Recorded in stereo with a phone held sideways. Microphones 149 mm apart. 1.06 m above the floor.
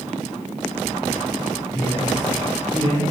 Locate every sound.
1.7 s a man speaking: 55° left (ahead or behind), 3 m; by 3.0 s 35° left (ahead or behind), 3 m